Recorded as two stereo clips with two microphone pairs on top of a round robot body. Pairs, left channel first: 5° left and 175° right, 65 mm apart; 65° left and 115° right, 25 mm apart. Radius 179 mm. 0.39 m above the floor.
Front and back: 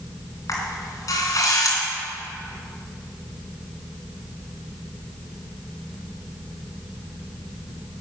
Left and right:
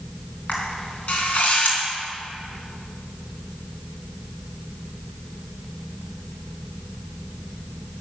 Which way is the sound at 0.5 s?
35° left.